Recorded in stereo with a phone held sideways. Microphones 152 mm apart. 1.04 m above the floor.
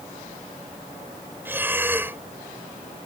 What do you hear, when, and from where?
1.4 s breathing: 15° right (ahead or behind)